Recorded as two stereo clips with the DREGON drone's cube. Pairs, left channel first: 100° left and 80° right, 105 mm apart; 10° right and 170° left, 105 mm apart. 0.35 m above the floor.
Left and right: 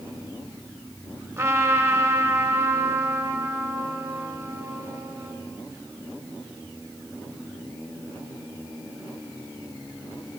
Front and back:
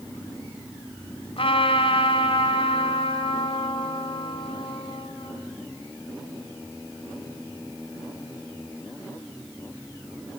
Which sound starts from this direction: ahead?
A trumpet, at 1.4 s.